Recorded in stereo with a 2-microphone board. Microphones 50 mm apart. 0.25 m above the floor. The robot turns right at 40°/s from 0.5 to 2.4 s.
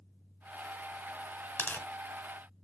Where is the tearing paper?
40° left (ahead or behind), 0.8 m; by 1.9 s 45° left (ahead or behind), 0.8 m.